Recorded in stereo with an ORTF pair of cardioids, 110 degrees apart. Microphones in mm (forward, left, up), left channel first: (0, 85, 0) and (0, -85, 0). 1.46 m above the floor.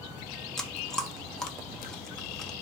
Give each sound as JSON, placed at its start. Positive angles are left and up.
{"t": 0.6, "sound": "chewing", "azimuth_deg": 5, "distance_m": 0.7}